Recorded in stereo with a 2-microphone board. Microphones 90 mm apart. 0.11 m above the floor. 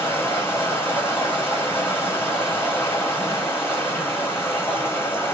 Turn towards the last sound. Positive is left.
turn(degrees=25)  # may be behind; listen again after turning